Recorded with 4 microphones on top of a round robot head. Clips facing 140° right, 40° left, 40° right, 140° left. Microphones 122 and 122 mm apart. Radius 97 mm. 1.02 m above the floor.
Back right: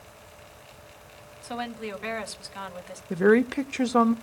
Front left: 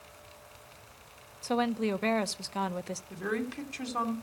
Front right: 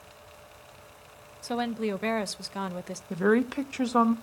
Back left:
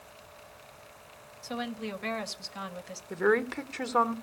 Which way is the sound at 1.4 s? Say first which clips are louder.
Front left 5 dB, front right 7 dB; 10° right.